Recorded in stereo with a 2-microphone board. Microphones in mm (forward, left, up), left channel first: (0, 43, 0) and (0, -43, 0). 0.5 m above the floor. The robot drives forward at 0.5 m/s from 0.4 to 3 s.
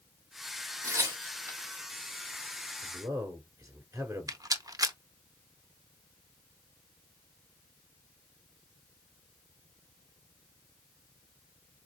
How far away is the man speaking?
About 1.1 m.